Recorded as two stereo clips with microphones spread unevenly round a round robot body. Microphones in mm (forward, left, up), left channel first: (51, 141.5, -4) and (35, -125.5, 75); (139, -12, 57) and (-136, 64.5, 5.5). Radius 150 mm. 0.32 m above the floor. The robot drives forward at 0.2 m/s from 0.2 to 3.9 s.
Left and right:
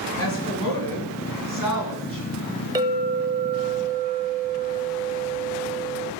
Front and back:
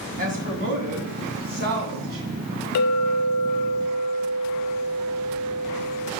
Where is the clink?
5° right, 0.7 m; by 6.1 s 10° right, 0.5 m.